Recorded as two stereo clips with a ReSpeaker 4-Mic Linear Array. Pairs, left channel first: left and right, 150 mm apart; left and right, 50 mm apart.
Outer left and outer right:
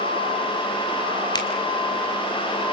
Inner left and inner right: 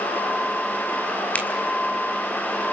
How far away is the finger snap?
About 3 m.